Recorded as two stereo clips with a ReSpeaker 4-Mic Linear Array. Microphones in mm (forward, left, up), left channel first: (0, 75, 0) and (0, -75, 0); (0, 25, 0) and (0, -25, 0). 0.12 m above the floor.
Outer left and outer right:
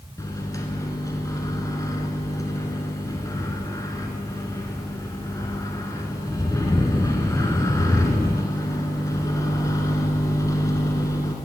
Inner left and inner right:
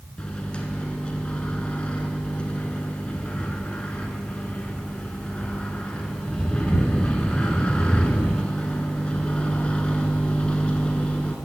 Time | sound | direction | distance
0.2 | a microwave | 25° left (ahead or behind) | 0.9 m